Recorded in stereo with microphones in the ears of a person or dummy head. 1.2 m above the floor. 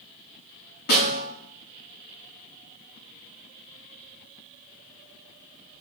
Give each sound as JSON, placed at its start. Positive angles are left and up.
{"t": 0.9, "sound": "a snare drum", "side_deg": 50, "distance_m": 6.5}